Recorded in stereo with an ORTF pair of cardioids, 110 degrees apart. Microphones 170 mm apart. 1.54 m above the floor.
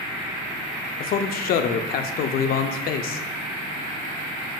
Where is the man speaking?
65° left, 0.5 m.